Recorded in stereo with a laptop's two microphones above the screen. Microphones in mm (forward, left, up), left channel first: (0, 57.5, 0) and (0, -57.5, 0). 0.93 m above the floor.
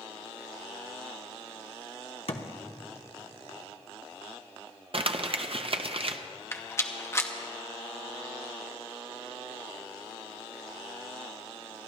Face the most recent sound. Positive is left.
turn(degrees=25)  # may be behind; listen again after turning